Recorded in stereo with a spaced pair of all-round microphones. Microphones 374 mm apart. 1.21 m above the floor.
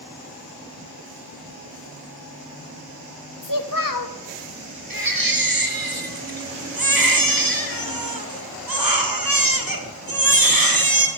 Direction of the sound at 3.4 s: 60° left (ahead or behind).